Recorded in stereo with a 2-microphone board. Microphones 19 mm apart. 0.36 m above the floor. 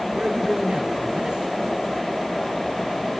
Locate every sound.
0.1 s a man speaking: 55° right (ahead or behind), 4.5 m